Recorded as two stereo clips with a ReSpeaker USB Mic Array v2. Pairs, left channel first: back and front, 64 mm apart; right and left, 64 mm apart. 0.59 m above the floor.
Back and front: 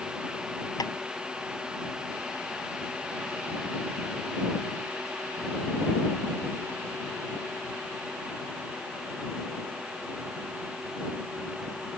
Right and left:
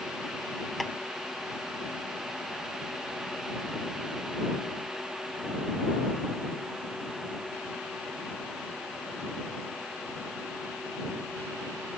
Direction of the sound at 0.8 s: Straight behind.